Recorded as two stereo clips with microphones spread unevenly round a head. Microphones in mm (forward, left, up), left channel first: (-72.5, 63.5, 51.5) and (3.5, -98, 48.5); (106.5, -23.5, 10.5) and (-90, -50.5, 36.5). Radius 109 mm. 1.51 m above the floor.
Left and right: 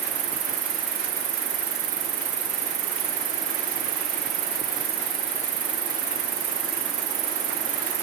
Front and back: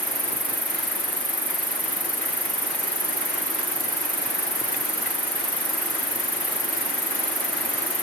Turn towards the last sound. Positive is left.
turn(degrees=-90)